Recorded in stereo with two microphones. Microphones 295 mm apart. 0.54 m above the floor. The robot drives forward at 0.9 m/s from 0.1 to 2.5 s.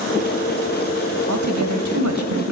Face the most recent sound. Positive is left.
turn(degrees=-65)  # may be behind; listen again after turning